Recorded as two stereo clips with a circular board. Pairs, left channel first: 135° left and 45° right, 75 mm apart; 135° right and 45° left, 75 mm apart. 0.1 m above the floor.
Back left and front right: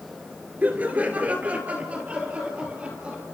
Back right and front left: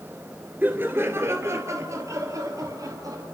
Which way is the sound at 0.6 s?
5° left.